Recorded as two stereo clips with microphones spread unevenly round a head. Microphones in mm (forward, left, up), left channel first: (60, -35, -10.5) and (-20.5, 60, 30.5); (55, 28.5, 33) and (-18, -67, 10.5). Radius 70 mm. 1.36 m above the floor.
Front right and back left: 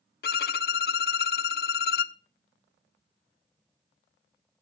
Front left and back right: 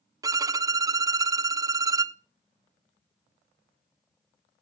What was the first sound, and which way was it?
A violin, 65° right.